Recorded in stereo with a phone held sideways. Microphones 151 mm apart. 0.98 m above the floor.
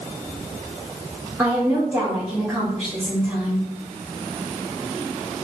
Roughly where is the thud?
No thud in this recording.